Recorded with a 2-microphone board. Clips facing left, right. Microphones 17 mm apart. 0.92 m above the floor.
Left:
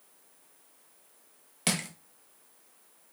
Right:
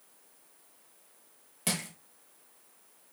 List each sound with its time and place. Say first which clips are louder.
1.7 s crushing: left 3 dB; 30° left (ahead or behind), 0.6 m